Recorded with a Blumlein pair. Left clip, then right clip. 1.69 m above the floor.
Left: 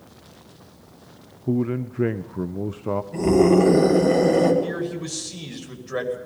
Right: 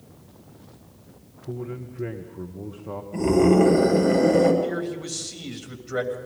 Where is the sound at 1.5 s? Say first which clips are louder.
Left 9 dB; 50° left, 0.7 m.